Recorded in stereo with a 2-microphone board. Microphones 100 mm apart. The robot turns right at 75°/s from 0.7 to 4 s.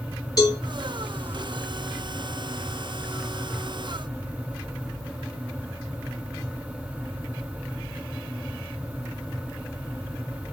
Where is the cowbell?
35° left (ahead or behind), 1.5 m.